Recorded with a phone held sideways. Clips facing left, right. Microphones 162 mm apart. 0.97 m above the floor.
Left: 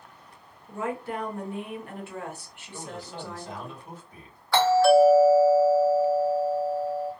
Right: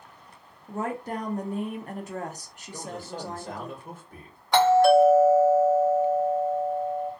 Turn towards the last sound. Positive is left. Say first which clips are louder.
# right 1 dB
turn(degrees=-20)  # may be behind; listen again after turning